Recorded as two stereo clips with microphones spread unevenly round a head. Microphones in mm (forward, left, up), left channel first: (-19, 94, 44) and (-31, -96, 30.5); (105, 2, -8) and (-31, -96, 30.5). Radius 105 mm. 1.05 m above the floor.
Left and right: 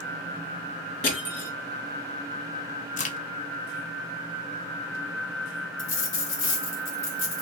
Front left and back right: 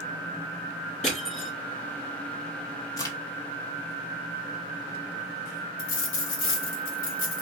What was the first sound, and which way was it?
Crushing, 100° left.